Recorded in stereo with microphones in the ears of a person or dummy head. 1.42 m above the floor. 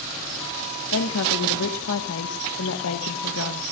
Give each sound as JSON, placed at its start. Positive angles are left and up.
{"t": 0.9, "sound": "a woman speaking", "side_deg": 85, "distance_m": 1.5}